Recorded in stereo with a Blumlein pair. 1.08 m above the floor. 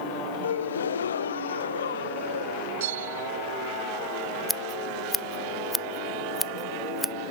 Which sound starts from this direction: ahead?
Scissors, at 4.5 s.